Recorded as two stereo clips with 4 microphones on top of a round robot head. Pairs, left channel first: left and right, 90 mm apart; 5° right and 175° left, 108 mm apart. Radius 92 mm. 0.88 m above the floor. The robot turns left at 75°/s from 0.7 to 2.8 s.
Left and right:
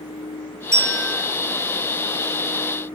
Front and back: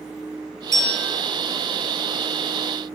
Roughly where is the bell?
Behind right.